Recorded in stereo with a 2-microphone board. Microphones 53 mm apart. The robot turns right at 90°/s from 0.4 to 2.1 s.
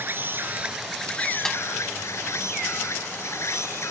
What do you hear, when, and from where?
0.0 s an insect: 45° right; by 3.9 s 110° left
1.4 s a snare drum: 10° left (ahead or behind); by 1.6 s 20° left (ahead or behind)